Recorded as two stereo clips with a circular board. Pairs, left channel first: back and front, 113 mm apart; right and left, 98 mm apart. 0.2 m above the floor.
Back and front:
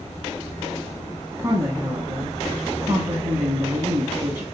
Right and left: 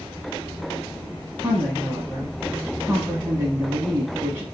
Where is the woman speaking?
40° left, 1.2 m.